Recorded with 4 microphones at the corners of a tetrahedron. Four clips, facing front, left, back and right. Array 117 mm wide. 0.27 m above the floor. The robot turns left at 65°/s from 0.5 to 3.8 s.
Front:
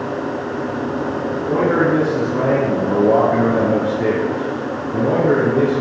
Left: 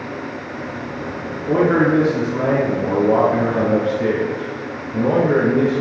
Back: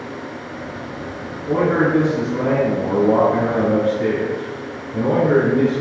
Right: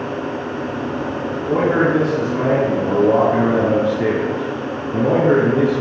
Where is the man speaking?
95° left, 4.5 m; by 5.8 s 55° right, 4.5 m.